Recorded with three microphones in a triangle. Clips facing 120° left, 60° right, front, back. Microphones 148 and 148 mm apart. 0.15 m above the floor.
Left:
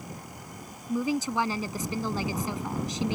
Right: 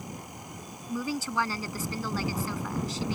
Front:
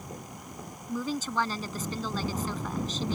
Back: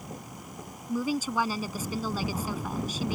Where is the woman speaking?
120° left.